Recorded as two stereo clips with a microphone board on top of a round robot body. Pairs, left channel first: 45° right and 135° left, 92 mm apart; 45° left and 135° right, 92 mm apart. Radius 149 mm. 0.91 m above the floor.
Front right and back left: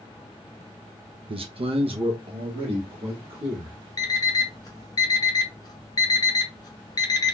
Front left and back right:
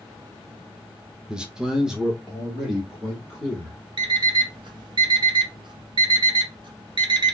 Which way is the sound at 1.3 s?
145° left.